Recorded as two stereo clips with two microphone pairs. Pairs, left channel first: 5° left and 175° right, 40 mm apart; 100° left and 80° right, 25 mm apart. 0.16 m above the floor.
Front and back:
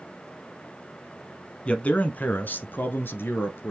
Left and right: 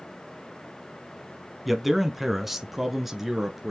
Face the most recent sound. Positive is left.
turn(degrees=0)